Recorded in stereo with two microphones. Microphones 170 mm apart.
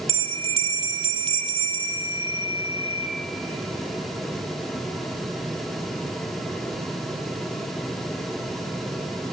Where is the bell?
35° right (ahead or behind), 0.8 m.